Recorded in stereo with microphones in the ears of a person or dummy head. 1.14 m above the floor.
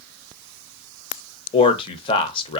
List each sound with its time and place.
1.5 s a man speaking: 30° left (ahead or behind), 0.5 m